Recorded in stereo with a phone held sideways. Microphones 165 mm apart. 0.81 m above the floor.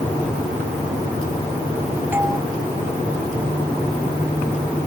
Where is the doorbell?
15° right (ahead or behind).